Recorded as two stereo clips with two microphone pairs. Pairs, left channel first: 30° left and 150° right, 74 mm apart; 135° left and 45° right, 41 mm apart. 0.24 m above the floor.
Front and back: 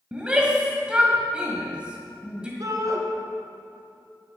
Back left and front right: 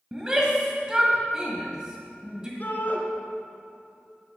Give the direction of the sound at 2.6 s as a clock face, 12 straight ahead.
6 o'clock.